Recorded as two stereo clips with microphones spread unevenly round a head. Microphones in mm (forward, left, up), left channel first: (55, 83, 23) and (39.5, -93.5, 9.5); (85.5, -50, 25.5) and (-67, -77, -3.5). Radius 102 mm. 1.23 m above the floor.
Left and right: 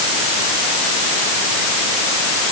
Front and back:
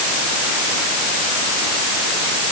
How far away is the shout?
I don't hear a shout.